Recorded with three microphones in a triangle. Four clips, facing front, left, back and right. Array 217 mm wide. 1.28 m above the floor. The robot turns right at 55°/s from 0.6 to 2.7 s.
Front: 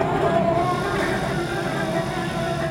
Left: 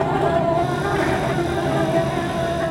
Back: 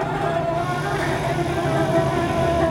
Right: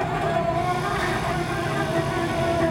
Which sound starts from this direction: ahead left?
An insect, at 0.0 s.